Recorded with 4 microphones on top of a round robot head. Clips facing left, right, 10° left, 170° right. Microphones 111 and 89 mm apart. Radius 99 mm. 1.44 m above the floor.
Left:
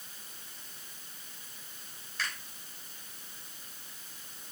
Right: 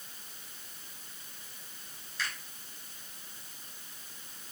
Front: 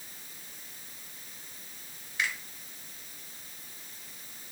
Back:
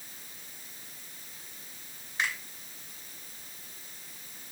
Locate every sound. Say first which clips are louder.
2.2 s a finger snap: even, back 1 dB; 140° left, 3 m